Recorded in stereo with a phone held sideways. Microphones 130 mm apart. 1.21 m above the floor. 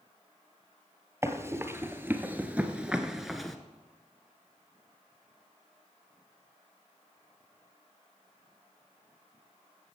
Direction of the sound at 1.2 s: 20° right (ahead or behind).